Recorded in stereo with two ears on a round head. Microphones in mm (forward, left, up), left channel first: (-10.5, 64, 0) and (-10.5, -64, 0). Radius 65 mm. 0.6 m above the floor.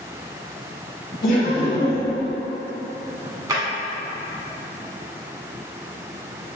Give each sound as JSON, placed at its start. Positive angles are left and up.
{"t": 1.2, "sound": "laughter", "side_deg": 60, "distance_m": 1.9}
{"t": 3.5, "sound": "a drawer", "side_deg": -25, "distance_m": 1.2}